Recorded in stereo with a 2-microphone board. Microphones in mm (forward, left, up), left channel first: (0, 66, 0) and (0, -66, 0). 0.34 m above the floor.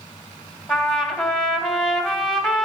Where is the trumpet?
Centre (ahead or behind), 2.5 m.